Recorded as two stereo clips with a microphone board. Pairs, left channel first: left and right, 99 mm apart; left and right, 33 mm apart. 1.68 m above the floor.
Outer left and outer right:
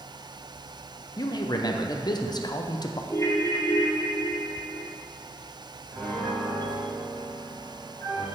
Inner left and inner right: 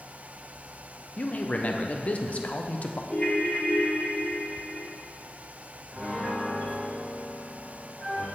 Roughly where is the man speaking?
Left.